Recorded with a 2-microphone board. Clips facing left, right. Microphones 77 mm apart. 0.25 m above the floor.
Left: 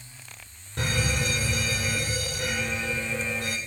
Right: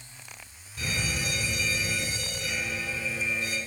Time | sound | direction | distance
0.8 | a fire alarm | 60° left (ahead or behind) | 4 m